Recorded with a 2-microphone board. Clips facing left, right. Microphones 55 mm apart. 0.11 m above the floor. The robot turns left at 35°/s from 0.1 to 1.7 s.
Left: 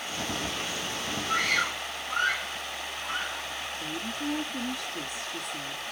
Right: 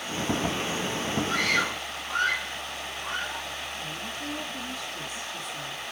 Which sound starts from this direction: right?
A scream, at 1.3 s.